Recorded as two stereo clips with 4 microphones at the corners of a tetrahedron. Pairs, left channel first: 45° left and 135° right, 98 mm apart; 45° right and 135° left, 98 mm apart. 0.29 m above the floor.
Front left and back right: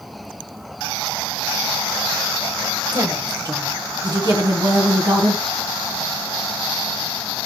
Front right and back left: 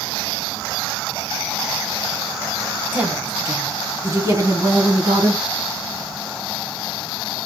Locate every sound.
2.9 s a woman speaking: 160° right, 1.2 m; by 5.4 s straight behind, 2 m